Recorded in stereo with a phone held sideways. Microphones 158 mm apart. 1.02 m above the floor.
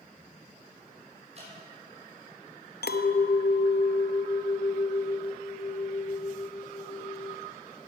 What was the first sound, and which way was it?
Dripping, 45° right (ahead or behind).